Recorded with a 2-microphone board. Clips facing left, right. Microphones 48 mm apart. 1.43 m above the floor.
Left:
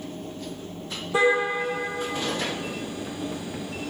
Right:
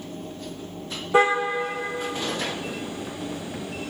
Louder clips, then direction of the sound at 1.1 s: Right 1 dB; 30° right (ahead or behind).